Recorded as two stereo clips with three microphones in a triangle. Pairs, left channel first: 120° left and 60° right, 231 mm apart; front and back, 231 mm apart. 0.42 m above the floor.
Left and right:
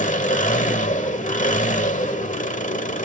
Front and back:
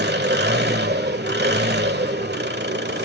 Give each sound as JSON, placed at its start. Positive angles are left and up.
{"t": 0.0, "sound": "an engine running", "azimuth_deg": 165, "distance_m": 1.3}